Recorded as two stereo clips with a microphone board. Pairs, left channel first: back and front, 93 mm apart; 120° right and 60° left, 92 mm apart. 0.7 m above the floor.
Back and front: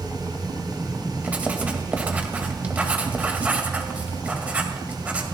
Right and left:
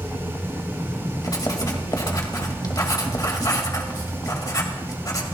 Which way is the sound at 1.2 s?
75° right.